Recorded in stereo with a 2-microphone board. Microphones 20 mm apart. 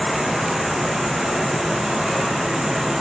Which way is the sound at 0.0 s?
35° right (ahead or behind).